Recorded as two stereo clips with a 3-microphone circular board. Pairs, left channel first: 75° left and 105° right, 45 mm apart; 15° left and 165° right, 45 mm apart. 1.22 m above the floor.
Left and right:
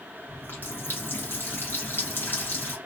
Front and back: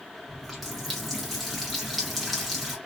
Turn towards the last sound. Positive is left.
turn(degrees=105)